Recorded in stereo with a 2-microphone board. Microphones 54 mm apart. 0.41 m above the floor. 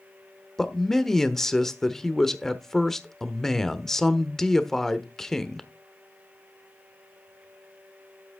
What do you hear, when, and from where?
0.6 s a man speaking: 5° left (ahead or behind), 1.1 m